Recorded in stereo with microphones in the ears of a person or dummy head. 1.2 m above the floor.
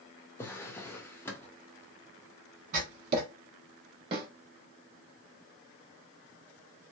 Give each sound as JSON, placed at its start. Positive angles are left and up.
{"t": 0.4, "sound": "a drawer", "side_deg": 20, "distance_m": 0.7}
{"t": 2.7, "sound": "writing", "side_deg": -40, "distance_m": 1.1}
{"t": 4.1, "sound": "a snare drum", "side_deg": -25, "distance_m": 1.2}